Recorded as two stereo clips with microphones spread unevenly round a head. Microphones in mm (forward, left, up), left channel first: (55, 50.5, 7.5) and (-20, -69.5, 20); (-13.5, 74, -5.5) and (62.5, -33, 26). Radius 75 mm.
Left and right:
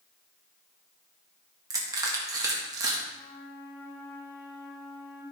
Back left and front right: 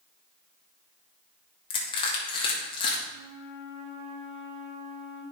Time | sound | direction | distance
1.7 | crushing | 170° left | 1.6 m
3.1 | a flute | 15° right | 4 m